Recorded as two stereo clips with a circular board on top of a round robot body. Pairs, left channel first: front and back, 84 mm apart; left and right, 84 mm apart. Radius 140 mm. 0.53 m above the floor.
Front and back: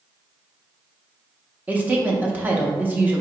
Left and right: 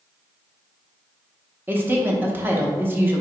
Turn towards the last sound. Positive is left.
turn(degrees=-130)